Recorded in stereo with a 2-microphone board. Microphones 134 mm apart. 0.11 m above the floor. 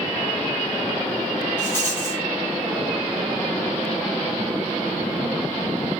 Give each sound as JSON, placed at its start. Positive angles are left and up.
{"t": 1.6, "sound": "a rattle", "side_deg": 15, "distance_m": 2.0}